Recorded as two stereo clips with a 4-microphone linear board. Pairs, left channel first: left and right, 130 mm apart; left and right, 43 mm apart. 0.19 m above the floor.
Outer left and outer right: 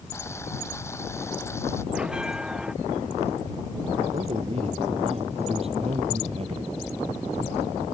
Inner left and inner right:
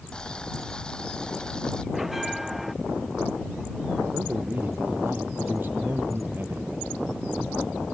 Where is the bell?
5° right (ahead or behind).